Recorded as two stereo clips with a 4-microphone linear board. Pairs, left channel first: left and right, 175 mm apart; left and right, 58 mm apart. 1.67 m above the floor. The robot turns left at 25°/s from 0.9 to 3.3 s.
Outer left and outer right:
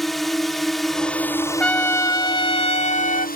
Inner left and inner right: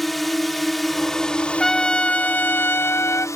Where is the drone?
Straight behind; by 3.4 s 120° left.